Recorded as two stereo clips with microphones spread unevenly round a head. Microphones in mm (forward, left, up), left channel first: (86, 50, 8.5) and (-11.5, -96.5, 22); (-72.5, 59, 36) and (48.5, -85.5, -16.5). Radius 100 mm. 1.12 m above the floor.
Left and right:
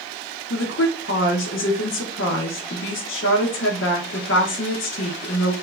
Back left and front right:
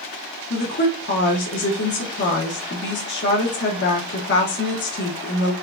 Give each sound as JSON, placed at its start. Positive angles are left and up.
{"t": 0.5, "sound": "a woman speaking", "azimuth_deg": 90, "distance_m": 0.7}